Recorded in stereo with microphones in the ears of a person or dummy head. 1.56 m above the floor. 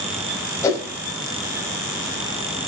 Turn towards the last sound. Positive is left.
turn(degrees=15)  # may be behind; listen again after turning